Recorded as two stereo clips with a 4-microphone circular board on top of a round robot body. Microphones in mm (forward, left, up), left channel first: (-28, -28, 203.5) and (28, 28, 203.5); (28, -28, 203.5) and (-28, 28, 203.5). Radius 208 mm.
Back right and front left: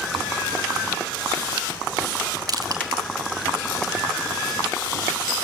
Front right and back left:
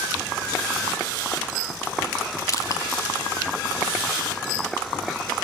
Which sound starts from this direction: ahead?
Crushing, at 2.5 s.